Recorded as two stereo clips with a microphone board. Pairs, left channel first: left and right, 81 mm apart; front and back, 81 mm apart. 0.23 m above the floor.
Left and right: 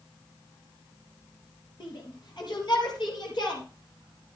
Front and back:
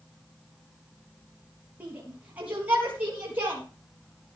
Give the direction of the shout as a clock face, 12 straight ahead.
8 o'clock.